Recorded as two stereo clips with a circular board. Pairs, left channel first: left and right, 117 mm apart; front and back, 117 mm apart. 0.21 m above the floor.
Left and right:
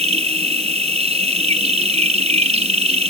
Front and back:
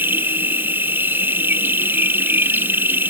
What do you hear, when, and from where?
0.0 s an insect: 110° right